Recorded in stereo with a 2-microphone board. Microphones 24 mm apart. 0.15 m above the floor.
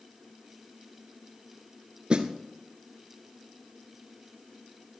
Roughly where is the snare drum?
Right.